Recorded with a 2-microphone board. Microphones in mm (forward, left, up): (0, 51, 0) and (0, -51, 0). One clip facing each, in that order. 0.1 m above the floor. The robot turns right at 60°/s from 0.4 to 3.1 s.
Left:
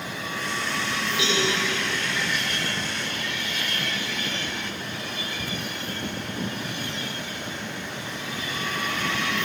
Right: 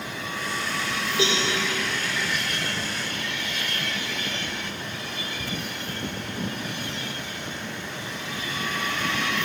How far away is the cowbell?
About 8.5 m.